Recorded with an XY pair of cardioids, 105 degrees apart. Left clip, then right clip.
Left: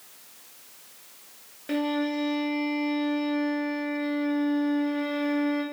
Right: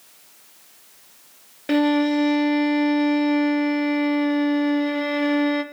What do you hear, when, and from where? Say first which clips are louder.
1.7 s a violin: right 8 dB; 60° right, 0.8 m